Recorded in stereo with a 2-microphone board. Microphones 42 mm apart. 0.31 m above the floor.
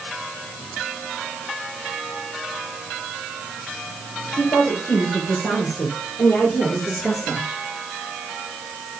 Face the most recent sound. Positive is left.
turn(degrees=25)  # may be behind; listen again after turning